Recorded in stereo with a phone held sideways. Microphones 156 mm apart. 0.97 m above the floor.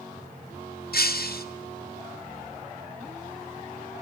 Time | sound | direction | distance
0.9 | breaking glass | 80° left | 2.0 m